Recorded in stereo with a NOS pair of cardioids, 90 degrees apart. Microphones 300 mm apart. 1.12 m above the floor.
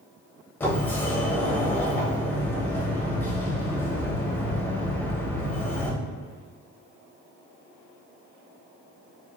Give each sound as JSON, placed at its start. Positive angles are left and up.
{"t": 0.6, "sound": "a sliding door", "azimuth_deg": 5, "distance_m": 0.7}